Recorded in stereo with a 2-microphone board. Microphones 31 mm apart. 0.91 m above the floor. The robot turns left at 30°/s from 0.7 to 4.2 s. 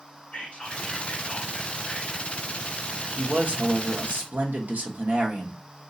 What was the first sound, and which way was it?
Whispering, 45° left.